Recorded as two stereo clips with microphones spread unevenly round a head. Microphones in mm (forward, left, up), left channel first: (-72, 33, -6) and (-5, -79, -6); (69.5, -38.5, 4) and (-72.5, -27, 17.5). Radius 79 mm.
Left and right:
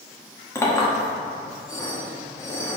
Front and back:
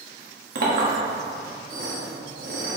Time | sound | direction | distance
0.6 | a clink | 175° right | 1.6 m